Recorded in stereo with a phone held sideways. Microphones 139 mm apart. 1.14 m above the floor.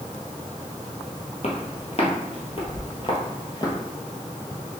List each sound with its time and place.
1.4 s footsteps: 50° left (ahead or behind), 1.6 m; by 3.8 s 30° left (ahead or behind), 1.6 m